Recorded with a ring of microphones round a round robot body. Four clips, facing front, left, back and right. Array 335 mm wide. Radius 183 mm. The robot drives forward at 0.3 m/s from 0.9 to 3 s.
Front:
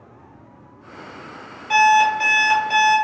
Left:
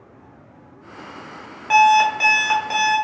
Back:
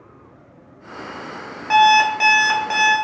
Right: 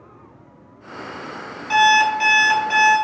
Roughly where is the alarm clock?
Behind left.